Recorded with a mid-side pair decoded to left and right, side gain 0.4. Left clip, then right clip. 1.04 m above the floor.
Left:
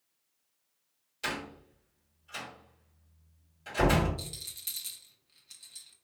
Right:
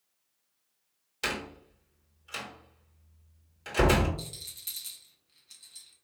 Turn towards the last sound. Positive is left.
turn(degrees=20)